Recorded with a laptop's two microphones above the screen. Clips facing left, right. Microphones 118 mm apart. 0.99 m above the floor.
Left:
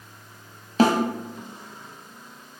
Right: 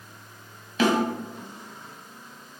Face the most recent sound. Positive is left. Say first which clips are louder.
# left 3 dB
turn(degrees=35)  # may be behind; listen again after turning